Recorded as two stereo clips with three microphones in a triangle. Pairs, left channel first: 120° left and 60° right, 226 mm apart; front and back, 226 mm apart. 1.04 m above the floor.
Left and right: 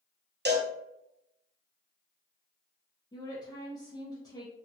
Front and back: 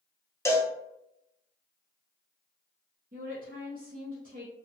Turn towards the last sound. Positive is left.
turn(degrees=-175)